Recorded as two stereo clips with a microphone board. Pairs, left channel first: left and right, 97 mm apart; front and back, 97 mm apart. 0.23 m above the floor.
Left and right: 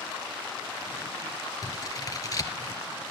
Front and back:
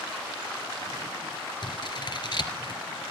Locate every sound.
1.6 s scissors: 40° left, 2 m